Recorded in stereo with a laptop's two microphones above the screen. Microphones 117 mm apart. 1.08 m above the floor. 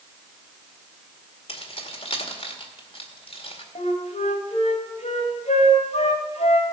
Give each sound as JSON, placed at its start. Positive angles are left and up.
{"t": 1.5, "sound": "keys jangling", "side_deg": 55, "distance_m": 2.0}
{"t": 3.8, "sound": "a flute", "side_deg": 80, "distance_m": 2.5}